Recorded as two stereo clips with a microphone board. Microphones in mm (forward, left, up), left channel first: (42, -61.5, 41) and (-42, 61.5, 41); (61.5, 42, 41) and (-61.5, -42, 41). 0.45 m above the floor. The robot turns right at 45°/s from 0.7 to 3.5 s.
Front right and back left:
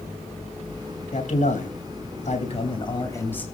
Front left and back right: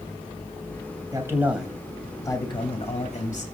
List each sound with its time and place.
1.1 s a man speaking: 80° right, 3.5 m; by 3.5 s 25° left, 3.5 m